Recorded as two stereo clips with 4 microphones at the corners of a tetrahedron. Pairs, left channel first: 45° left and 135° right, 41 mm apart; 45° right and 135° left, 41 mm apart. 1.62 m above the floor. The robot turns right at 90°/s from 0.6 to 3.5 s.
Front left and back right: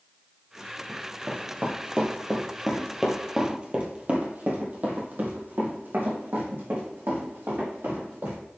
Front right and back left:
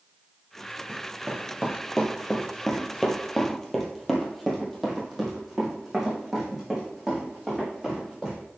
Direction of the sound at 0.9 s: 160° left.